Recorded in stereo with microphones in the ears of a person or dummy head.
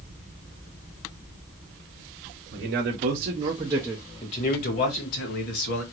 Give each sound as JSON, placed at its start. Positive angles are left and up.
{"t": 2.5, "sound": "a man speaking", "side_deg": -55, "distance_m": 1.0}